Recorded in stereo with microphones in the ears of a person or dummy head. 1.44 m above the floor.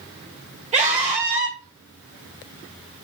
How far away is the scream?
About 1.7 m.